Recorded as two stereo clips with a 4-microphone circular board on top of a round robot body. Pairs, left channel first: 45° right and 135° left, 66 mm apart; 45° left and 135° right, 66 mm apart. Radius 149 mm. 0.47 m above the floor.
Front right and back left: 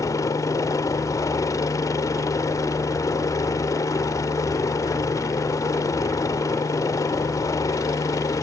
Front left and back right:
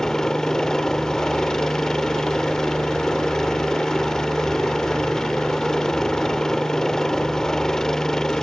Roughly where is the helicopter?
Ahead right.